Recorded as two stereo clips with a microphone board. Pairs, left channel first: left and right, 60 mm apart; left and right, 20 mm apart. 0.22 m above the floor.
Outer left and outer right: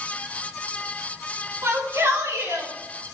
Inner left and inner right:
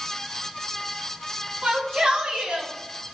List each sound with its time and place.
1.6 s a shout: 55° right (ahead or behind), 3 m; by 2.7 s 65° right (ahead or behind), 3.5 m